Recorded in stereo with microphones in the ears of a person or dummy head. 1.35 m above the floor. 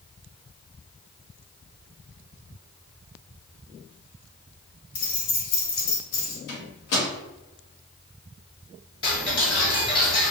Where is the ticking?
25° left (ahead or behind), 1.0 m.